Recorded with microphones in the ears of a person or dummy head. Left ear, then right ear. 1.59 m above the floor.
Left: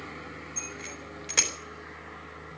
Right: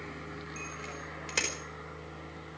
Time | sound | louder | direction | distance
0.6 | a bicycle bell | left 3 dB | 5° right (ahead or behind) | 4 m